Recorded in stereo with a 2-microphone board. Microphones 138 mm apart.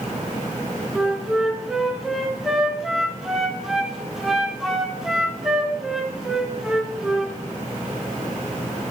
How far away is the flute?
About 2.5 m.